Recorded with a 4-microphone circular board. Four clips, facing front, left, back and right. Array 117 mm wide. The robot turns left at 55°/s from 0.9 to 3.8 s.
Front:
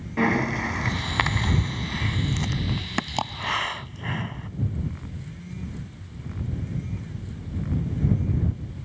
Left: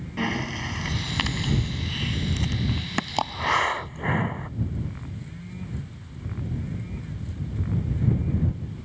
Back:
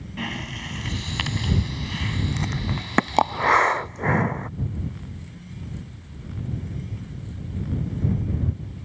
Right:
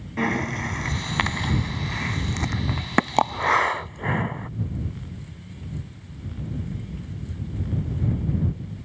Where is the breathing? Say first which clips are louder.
Right 4 dB, front 10 dB; 20° right; by 4.5 s straight behind.